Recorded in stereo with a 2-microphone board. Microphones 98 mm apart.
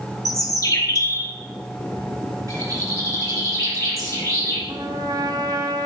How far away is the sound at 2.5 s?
About 3.5 m.